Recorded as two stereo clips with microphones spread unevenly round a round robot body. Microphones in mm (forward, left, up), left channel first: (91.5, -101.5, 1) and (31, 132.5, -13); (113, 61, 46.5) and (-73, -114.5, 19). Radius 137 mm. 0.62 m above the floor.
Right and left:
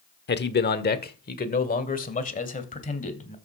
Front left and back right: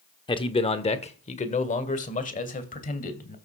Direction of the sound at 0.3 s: 30° right.